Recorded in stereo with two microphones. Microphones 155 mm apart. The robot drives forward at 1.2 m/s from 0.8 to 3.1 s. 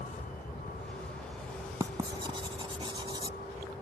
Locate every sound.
0.0 s a vehicle: 60° left (ahead or behind); by 3.8 s 90° left
1.8 s writing: 25° right (ahead or behind); by 3.4 s 30° right (ahead or behind)